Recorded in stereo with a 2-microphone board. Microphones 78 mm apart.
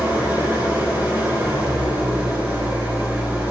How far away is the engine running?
About 2 m.